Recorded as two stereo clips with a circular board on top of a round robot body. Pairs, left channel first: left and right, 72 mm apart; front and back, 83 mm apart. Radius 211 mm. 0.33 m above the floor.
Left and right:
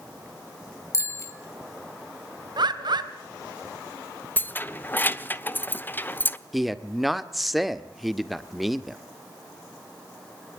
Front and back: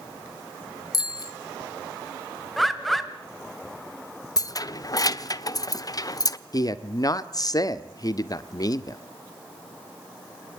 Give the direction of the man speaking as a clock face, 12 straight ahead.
12 o'clock.